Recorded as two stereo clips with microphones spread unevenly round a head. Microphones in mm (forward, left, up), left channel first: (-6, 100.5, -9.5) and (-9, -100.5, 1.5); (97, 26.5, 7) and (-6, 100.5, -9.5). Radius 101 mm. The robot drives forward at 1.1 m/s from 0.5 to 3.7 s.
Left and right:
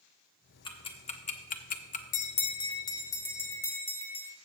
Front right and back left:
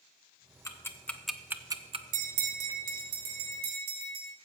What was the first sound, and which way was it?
Ticking, 25° left.